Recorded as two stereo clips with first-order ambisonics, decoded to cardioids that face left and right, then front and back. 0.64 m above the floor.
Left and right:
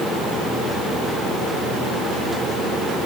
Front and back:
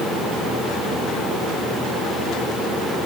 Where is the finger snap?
No finger snap in this recording.